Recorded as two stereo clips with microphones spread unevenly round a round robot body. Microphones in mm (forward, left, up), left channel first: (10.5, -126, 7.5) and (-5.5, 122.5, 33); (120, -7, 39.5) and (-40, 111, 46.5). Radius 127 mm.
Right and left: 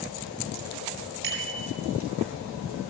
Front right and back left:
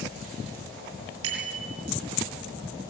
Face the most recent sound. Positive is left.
turn(degrees=145)